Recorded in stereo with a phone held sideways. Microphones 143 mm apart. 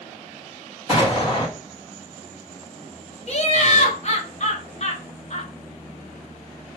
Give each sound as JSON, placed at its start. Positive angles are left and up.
{"t": 0.9, "sound": "an explosion", "side_deg": -25, "distance_m": 1.6}
{"t": 3.3, "sound": "laughter", "side_deg": 50, "distance_m": 0.7}